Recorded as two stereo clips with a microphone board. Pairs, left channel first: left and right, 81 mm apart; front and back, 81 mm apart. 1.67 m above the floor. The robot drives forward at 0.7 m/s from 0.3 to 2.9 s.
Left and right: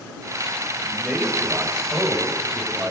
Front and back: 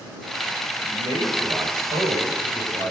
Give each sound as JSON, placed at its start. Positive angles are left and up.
{"t": 0.8, "sound": "a man speaking", "azimuth_deg": -170, "distance_m": 7.5}